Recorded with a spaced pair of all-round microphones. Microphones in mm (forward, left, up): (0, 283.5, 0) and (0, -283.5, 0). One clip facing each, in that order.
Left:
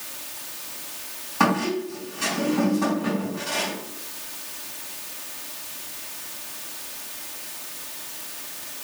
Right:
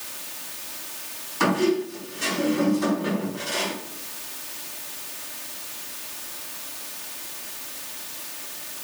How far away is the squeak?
About 4.5 m.